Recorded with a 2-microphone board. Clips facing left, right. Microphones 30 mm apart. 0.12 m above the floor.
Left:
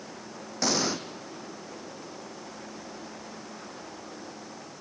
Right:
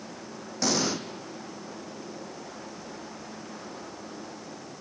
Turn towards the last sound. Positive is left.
turn(degrees=5)  # may be behind; listen again after turning